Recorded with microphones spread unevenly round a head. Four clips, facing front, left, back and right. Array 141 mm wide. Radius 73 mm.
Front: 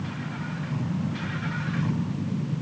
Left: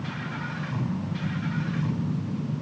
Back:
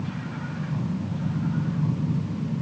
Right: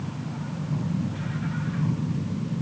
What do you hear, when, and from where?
Only background noise.